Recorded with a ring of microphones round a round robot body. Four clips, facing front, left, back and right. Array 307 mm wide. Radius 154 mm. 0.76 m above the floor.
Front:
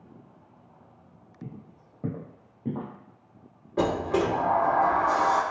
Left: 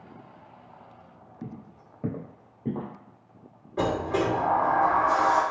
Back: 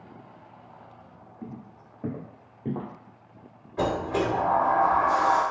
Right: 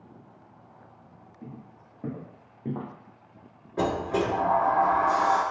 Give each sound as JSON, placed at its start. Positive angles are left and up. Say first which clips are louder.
{"t": 1.4, "sound": "footsteps", "louder": "left 3 dB, back 2 dB", "azimuth_deg": 65, "distance_m": 0.9}
{"t": 3.8, "sound": "a sliding door", "louder": "even, front 1 dB", "azimuth_deg": 5, "distance_m": 1.5}